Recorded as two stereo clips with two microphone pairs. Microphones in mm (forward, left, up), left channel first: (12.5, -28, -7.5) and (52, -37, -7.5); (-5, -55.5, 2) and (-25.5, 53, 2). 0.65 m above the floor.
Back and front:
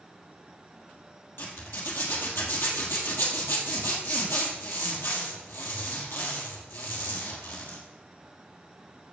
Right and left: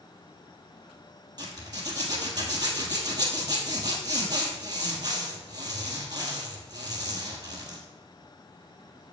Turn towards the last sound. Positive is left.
turn(degrees=150)